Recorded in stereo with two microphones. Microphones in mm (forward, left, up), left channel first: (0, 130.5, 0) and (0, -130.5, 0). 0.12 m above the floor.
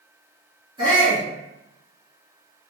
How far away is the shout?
About 1.1 m.